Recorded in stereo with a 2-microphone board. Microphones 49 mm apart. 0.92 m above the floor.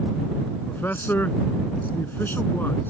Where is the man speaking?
45° left (ahead or behind).